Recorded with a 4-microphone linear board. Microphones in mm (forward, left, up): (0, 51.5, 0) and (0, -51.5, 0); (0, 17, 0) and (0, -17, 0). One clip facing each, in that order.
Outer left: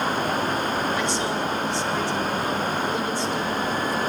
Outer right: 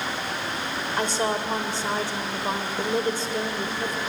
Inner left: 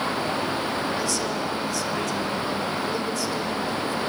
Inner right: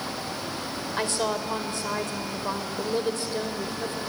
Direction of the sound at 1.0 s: 40° right (ahead or behind).